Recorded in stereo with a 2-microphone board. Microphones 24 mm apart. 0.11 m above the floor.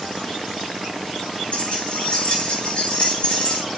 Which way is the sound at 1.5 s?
55° left (ahead or behind).